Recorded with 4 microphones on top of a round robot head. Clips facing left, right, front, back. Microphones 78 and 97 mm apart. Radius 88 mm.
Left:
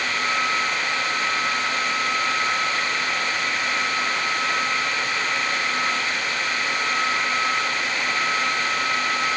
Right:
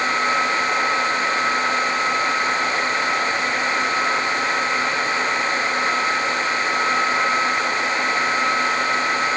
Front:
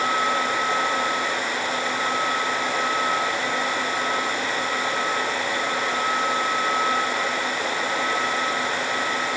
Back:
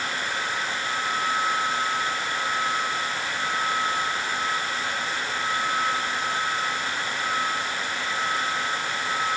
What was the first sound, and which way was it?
Only background noise.